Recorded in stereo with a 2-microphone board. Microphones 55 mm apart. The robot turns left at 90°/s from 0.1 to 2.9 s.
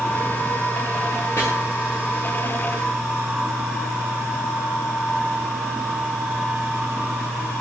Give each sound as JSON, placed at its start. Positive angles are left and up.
{"t": 1.4, "sound": "chopping", "side_deg": 50, "distance_m": 9.5}